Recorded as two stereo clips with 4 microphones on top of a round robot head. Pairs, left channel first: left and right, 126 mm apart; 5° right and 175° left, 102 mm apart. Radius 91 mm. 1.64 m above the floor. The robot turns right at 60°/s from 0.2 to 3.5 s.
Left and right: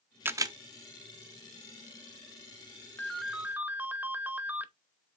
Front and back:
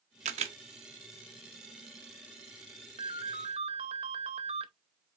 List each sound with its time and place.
0.2 s a camera shutter: 165° right, 0.9 m; by 0.6 s 145° right, 0.9 m
3.0 s a ringtone: 165° left, 0.6 m; by 4.7 s 165° right, 0.6 m